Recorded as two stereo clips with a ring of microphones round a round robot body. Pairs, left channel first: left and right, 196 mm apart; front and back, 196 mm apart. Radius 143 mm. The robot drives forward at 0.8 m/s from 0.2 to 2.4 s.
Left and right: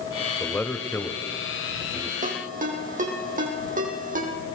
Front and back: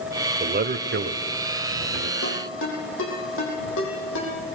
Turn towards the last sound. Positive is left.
turn(degrees=-45)